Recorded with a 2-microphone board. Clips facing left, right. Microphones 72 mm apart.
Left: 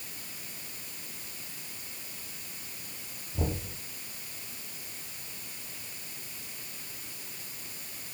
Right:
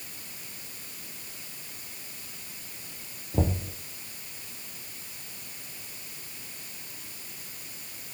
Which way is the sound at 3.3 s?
70° right (ahead or behind).